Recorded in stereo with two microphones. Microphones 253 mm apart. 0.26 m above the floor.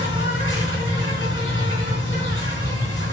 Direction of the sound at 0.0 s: 50° left (ahead or behind).